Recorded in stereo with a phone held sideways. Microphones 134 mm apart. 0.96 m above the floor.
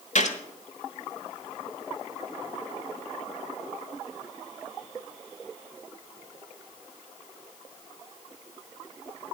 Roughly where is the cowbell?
I don't hear a cowbell.